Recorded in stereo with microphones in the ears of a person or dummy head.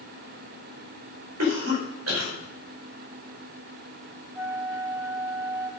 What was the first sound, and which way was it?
A cough, 85° right.